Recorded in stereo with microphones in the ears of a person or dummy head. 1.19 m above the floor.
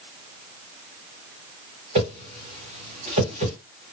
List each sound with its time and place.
1.9 s a whoosh: 40° right (ahead or behind), 1.7 m